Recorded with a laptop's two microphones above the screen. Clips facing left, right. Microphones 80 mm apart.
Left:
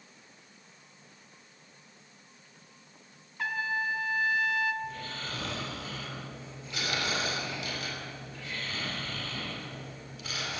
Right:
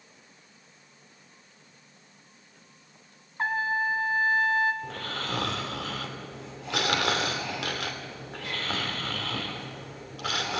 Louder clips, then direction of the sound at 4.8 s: Right 4 dB; 80° right.